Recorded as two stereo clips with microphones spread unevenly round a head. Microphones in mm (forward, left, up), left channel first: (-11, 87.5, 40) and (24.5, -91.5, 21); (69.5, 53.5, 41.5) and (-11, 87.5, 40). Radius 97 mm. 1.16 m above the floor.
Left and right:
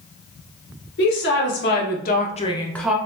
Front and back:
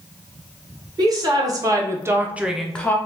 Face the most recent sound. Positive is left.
turn(degrees=-30)